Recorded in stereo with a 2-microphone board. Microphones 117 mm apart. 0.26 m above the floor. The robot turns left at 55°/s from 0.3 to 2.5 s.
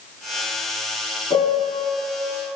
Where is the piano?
120° left, 2.0 m; by 1.9 s 90° left, 2.0 m.